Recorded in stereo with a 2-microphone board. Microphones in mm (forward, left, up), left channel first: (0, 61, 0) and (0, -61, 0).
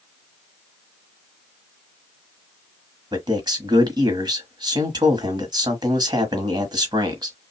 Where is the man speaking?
35° right (ahead or behind), 1.3 m.